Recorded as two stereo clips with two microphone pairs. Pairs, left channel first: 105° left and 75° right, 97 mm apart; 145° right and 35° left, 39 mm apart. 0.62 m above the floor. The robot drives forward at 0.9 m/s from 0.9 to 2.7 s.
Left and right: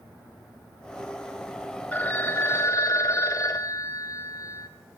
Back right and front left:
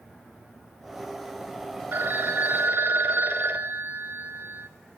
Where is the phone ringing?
35° left, 1.9 m; by 4.7 s 50° left, 1.3 m.